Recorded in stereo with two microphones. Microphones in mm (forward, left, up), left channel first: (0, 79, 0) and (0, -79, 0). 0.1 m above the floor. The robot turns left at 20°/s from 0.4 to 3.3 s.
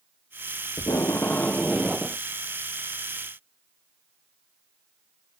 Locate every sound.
0.8 s tape being pulled: 20° left (ahead or behind); by 2.2 s 5° right (ahead or behind)